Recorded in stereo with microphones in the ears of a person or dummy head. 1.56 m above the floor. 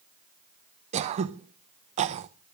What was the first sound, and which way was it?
Throat clearing, 35° right (ahead or behind).